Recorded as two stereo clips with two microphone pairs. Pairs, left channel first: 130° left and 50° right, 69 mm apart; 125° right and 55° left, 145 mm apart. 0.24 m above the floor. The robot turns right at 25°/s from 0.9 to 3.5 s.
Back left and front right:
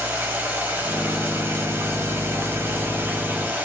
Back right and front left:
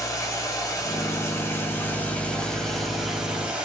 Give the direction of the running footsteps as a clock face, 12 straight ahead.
No running footsteps in this recording.